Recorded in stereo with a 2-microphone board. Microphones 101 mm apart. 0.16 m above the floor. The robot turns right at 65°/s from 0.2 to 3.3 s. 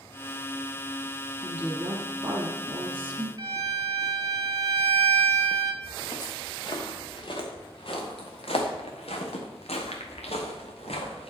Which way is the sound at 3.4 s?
40° right (ahead or behind).